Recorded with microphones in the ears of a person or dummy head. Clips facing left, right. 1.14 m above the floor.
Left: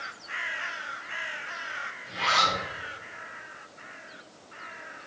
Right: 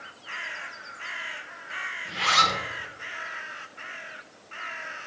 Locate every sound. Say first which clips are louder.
2.0 s a zipper: right 1 dB; 40° right (ahead or behind), 0.9 m